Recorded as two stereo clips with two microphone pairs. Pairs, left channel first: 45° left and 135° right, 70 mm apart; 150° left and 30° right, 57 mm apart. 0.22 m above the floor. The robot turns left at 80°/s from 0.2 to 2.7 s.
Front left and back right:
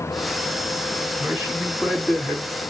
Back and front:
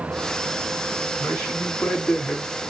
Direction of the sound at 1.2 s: 175° right.